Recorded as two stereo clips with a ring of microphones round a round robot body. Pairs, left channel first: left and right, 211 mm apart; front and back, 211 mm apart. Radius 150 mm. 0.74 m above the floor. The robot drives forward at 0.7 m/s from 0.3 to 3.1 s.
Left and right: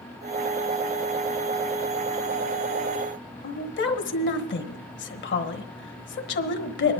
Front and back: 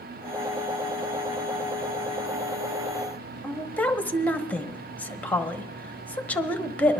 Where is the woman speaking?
80° left, 1.0 m.